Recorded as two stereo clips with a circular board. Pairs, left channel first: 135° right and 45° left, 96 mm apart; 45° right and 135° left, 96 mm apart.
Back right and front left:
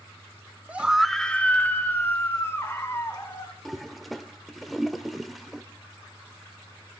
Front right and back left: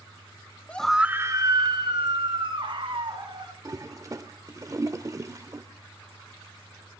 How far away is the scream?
About 0.8 m.